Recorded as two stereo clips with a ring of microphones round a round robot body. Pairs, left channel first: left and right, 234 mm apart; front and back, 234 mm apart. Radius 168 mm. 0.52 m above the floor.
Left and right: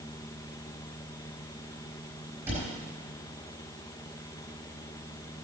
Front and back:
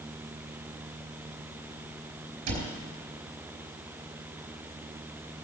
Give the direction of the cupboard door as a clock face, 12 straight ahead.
6 o'clock.